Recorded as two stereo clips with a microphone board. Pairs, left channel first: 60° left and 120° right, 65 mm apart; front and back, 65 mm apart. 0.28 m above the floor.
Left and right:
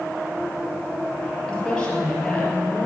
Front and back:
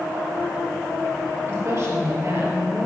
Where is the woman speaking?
140° left, 5 m.